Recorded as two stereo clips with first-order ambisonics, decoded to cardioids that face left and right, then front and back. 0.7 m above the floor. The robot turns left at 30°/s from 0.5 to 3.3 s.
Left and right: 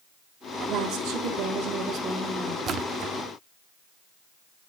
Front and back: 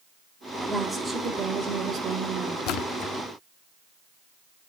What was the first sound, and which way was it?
A woman speaking, 90° right.